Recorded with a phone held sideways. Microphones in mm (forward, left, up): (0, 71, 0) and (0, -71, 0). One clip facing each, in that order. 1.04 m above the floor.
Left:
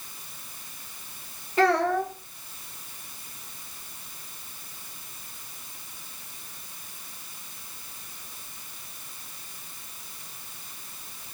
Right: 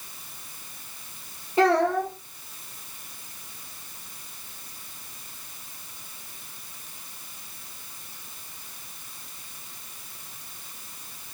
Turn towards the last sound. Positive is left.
turn(degrees=-20)  # may be behind; listen again after turning